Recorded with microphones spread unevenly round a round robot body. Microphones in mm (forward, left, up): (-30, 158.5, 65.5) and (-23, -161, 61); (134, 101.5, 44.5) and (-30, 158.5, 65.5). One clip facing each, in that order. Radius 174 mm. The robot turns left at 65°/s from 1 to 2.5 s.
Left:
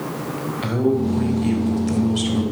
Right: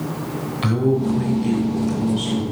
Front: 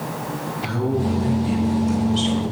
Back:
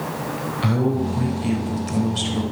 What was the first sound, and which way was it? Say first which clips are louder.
A man speaking: even, back 1 dB; 155° right.